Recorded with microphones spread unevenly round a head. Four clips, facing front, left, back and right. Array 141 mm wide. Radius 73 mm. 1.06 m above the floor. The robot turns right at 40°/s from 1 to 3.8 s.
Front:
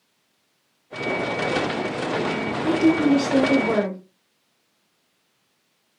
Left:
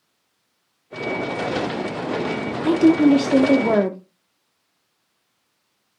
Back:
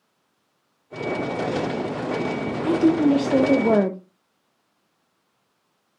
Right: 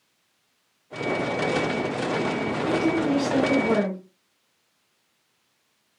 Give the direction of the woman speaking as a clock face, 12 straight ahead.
9 o'clock.